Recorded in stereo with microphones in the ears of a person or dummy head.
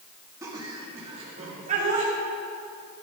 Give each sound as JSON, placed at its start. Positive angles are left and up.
{"t": 0.4, "sound": "laughter", "side_deg": -20, "distance_m": 2.5}